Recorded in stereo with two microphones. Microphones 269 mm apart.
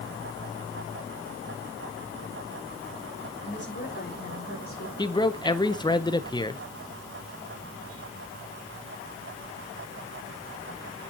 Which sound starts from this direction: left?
A woman speaking, at 3.4 s.